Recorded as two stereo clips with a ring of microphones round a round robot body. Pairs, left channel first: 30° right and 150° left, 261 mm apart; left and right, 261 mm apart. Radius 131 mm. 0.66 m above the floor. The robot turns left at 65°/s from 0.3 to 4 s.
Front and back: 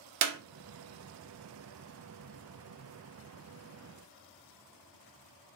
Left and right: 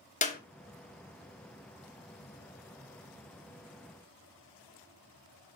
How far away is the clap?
About 1.1 m.